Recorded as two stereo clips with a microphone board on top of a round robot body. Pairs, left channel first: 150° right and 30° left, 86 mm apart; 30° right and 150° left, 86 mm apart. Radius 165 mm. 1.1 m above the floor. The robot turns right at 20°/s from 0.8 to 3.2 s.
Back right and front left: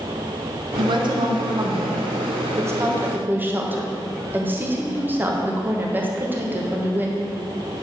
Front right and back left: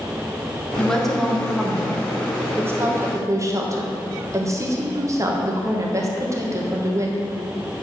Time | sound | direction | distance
0.8 | a woman speaking | 50° left | 1.6 m